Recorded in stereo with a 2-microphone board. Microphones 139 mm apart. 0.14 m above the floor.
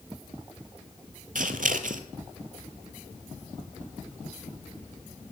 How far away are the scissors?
About 0.7 m.